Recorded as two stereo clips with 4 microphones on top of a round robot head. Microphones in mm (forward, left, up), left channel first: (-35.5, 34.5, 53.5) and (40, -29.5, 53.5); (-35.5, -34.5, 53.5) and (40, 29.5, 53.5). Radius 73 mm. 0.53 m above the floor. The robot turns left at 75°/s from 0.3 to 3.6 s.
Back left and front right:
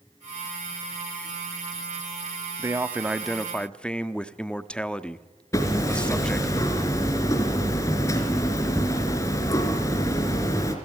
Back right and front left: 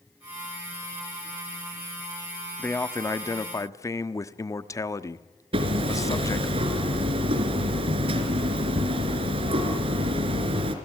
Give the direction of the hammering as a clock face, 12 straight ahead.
9 o'clock.